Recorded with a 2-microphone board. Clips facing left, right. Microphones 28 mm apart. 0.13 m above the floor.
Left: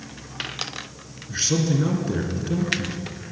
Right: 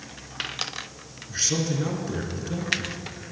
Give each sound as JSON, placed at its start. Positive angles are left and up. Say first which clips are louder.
{"t": 1.3, "sound": "a man speaking", "louder": "left 4 dB", "side_deg": 10, "distance_m": 1.4}